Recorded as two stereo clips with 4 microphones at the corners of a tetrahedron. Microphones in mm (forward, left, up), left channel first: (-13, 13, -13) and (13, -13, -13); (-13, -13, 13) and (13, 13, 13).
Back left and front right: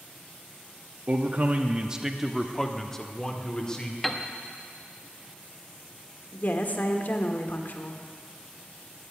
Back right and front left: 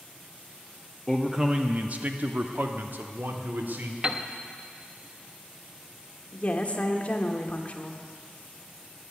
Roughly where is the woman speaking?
Behind.